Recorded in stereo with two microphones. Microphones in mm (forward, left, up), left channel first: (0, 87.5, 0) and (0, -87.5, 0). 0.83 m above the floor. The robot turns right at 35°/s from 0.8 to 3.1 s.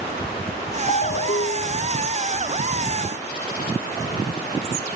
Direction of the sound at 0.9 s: 50° left.